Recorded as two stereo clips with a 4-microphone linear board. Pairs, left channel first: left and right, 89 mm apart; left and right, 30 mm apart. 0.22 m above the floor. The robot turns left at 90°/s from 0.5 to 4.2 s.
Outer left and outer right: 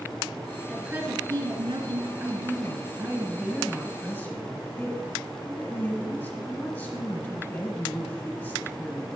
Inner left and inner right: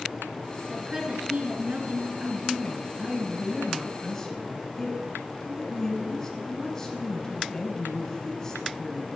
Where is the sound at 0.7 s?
5° right, 2.0 m; by 2.1 s 130° right, 2.0 m.